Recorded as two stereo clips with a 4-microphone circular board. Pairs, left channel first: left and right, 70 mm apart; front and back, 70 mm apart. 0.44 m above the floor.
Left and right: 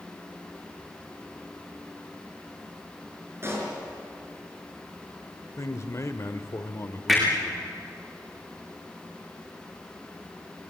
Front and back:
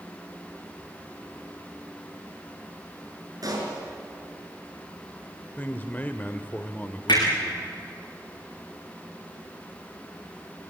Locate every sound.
3.4 s a pop: 145° right, 5 m
5.6 s a man speaking: 60° left, 1.1 m
7.1 s hammering: 5° right, 9.5 m